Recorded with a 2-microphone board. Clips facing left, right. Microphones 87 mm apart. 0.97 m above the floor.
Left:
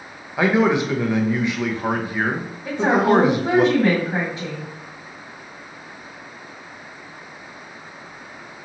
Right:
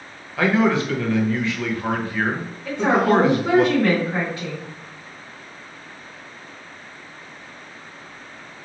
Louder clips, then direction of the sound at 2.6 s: Left 1 dB; 20° left (ahead or behind).